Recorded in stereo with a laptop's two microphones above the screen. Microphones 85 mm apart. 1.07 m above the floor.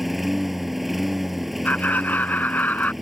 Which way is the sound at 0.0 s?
Centre (ahead or behind).